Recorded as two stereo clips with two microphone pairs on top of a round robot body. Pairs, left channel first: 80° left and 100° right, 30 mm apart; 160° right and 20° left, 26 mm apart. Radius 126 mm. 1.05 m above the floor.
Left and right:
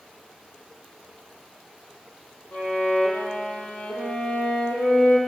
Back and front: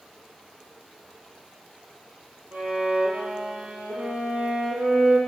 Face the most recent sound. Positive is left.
turn(degrees=45)